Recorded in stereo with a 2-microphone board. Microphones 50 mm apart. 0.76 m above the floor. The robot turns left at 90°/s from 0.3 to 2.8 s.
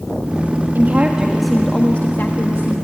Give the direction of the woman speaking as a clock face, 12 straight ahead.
4 o'clock.